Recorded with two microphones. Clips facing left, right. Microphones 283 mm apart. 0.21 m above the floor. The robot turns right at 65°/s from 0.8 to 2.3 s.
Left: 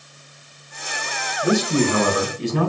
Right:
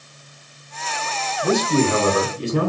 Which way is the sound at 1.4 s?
Straight behind.